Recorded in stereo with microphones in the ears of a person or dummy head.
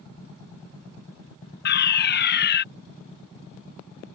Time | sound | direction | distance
1.6 | a fire alarm | 45° left (ahead or behind) | ?